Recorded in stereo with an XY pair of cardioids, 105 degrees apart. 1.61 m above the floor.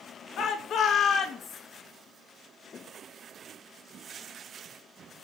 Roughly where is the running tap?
No running tap in this recording.